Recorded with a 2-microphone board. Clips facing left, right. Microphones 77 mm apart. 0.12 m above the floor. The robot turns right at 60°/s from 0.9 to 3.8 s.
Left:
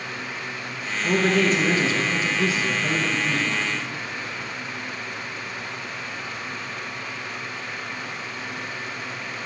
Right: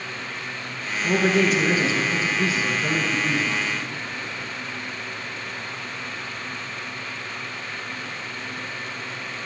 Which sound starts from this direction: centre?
A man speaking, at 1.0 s.